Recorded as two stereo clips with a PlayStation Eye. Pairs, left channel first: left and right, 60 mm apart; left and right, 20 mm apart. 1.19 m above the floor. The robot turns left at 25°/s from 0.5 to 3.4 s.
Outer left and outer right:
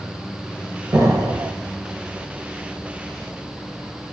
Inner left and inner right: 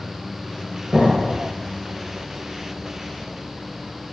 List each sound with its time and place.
0.9 s an explosion: 55° right (ahead or behind), 2.0 m; by 1.5 s 65° right (ahead or behind), 2.0 m